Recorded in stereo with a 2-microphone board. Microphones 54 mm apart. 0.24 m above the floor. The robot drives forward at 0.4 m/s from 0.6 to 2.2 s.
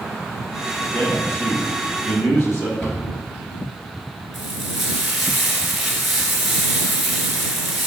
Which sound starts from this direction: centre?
Frying, at 4.3 s.